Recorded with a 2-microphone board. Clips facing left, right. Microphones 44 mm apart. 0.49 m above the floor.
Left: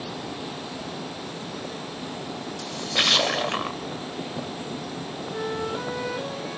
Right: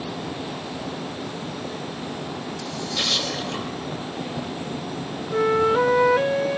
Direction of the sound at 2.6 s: 60° left (ahead or behind).